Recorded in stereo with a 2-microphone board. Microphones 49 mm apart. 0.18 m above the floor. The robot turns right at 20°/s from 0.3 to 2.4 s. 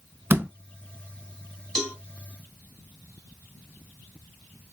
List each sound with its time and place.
0.3 s a door slam: 45° right (ahead or behind), 1.0 m
1.8 s a cowbell: 5° left (ahead or behind), 1.6 m; by 1.9 s centre (ahead or behind), 1.6 m